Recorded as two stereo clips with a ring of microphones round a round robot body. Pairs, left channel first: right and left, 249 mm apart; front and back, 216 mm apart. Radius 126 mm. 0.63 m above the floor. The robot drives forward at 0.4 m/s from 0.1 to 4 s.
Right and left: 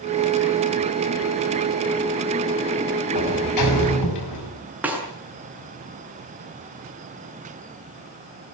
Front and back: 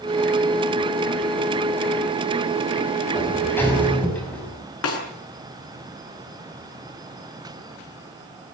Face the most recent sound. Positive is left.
turn(degrees=5)